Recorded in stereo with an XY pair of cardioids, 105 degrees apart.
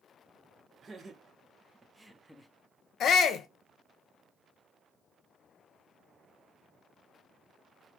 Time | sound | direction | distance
0.8 | laughter | 45° right | 1.4 m
3.0 | a shout | 60° left | 0.7 m